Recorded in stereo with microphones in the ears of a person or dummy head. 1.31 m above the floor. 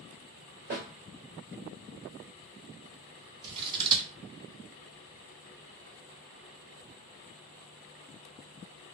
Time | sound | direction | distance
0.7 | a snare drum | 50° right (ahead or behind) | 1.3 m
3.4 | scissors | 20° right (ahead or behind) | 0.6 m